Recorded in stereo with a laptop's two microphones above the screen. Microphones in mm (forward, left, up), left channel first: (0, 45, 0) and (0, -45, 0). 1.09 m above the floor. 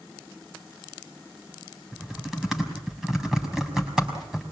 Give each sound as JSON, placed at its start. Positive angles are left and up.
{"t": 1.9, "sound": "typing on a keyboard", "side_deg": -5, "distance_m": 5.5}